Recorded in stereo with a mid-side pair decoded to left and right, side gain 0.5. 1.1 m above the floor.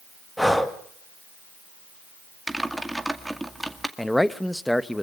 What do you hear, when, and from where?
0.4 s breathing: 5° left, 2.0 m
2.5 s typing on a keyboard: 5° right, 2 m
4.0 s a man speaking: 5° left, 1.2 m